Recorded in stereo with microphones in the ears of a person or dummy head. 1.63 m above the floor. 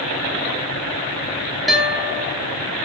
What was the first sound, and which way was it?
A guitar, centre (ahead or behind).